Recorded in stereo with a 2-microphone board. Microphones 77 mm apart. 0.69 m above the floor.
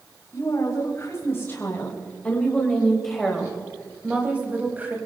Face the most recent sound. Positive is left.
turn(degrees=-25)  # may be behind; listen again after turning